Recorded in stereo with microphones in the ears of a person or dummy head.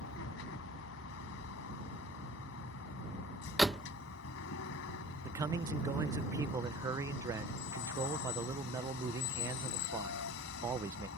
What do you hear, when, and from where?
0.0 s a vehicle: 70° left (ahead or behind)
3.6 s a door slam: 5° right (ahead or behind)
5.2 s a man speaking: 15° right (ahead or behind)